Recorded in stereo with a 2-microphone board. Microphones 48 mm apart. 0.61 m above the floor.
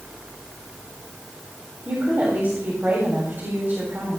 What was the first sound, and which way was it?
A woman speaking, 35° right (ahead or behind).